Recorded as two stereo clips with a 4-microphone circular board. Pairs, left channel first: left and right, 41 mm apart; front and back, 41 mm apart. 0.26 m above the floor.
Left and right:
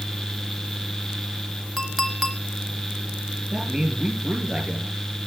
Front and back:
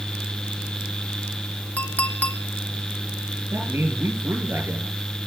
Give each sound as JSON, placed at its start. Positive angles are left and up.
{"t": 1.8, "sound": "a clink", "azimuth_deg": 5, "distance_m": 1.1}
{"t": 3.5, "sound": "a man speaking", "azimuth_deg": -170, "distance_m": 4.0}